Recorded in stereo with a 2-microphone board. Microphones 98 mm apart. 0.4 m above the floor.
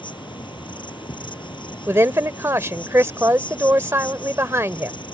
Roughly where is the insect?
Left.